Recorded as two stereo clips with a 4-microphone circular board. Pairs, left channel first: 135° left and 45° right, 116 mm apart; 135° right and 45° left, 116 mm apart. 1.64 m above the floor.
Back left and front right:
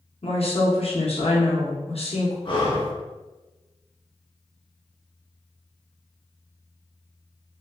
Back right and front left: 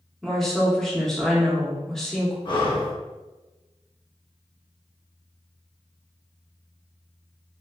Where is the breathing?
Straight behind, 0.9 m.